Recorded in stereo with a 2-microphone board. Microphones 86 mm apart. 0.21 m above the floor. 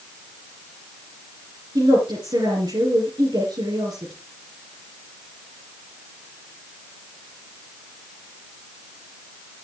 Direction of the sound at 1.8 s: 60° right (ahead or behind).